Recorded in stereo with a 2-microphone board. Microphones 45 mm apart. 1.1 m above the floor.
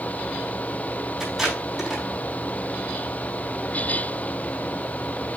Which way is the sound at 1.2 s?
5° right (ahead or behind).